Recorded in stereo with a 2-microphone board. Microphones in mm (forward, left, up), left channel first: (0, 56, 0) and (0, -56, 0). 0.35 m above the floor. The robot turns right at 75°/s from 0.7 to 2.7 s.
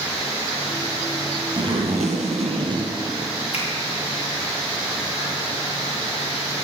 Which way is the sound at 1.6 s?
135° right.